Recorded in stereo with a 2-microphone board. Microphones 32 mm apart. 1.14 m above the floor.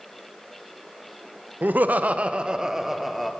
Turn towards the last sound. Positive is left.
turn(degrees=5)  # may be behind; listen again after turning